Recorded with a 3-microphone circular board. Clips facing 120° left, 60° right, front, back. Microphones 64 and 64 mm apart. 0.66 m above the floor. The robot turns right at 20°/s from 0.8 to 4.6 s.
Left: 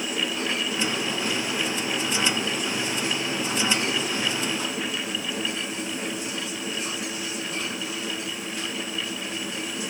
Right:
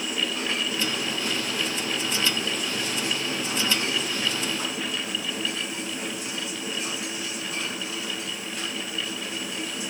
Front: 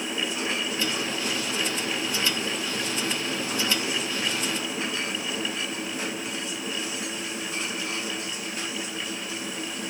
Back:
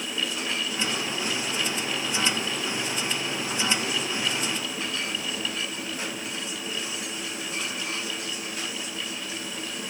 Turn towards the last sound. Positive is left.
No sound to turn to.